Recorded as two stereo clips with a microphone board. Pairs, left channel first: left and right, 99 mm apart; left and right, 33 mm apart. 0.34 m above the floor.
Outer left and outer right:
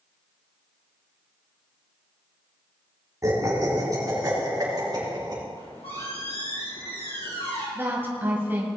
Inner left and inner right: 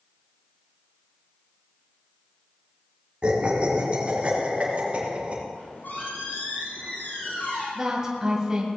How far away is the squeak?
About 5 m.